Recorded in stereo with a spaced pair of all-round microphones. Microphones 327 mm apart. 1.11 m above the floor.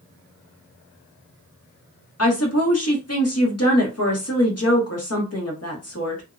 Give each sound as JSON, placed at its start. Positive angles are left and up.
{"t": 2.2, "sound": "a woman speaking", "side_deg": 50, "distance_m": 1.0}